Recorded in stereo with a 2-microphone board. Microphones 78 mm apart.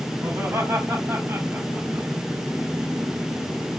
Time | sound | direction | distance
0.2 | laughter | 35° right (ahead or behind) | 4.5 m